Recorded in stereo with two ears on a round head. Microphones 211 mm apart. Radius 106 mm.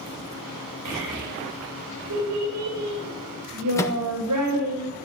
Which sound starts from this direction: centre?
A microwave, at 3.8 s.